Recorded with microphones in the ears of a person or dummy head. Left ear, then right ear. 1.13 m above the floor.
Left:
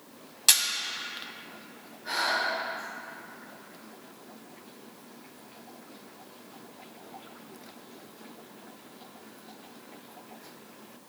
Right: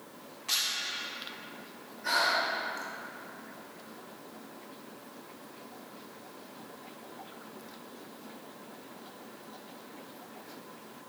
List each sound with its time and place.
0.5 s a camera shutter: 60° left (ahead or behind), 1.7 m
2.0 s breathing: 40° right (ahead or behind), 1.6 m